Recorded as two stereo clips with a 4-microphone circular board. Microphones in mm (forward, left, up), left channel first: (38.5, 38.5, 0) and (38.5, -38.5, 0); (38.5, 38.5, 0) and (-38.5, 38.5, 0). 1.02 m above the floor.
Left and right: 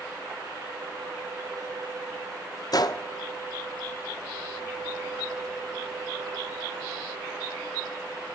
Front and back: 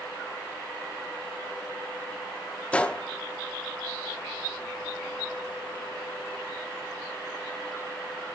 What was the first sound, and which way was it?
A gunshot, 70° left.